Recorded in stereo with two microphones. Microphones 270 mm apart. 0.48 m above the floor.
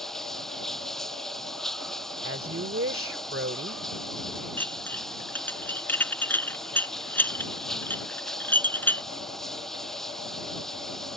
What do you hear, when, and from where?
0.0 s running water: centre (ahead or behind)
2.2 s a woman speaking: 55° right (ahead or behind)
4.6 s dishes clattering: 5° left (ahead or behind)